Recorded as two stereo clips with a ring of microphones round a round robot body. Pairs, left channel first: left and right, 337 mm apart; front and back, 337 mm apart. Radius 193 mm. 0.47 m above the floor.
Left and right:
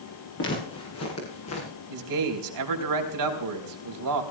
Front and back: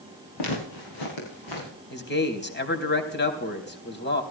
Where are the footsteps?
30° left, 6.5 m; by 1.7 s 40° left, 7 m.